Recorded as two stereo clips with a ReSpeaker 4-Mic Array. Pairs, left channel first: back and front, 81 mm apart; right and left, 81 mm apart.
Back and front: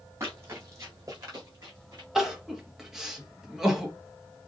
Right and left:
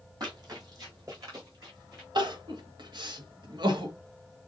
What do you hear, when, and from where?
0.2 s running footsteps: 55° left, 4 m; by 2.0 s 40° left, 5 m
2.1 s crying: 85° left, 1.3 m